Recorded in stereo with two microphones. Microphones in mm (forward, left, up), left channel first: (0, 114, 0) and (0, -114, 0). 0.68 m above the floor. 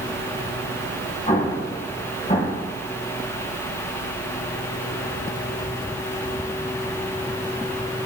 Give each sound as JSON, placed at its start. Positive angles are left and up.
{"t": 1.3, "sound": "an explosion", "side_deg": 35, "distance_m": 3.5}